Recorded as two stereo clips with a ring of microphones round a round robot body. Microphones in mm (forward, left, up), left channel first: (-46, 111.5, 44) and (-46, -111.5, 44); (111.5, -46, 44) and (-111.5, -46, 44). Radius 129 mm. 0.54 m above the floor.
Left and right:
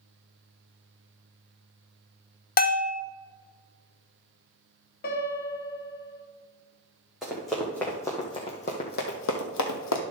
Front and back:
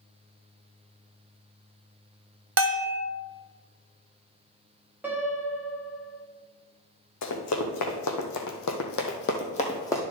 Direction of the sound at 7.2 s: Straight ahead.